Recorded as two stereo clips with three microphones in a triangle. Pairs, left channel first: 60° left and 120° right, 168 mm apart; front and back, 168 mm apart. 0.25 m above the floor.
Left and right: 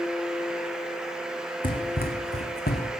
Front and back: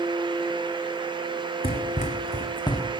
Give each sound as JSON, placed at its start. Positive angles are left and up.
{"t": 1.6, "sound": "running footsteps", "azimuth_deg": 25, "distance_m": 1.1}